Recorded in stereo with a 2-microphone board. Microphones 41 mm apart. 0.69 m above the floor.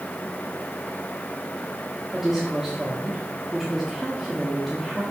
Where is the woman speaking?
5° right (ahead or behind), 1.5 m.